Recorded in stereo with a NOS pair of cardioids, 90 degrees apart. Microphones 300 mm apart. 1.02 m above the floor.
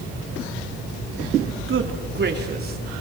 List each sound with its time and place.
1.7 s a man speaking: 45° right, 3 m; by 3.0 s 30° right, 4 m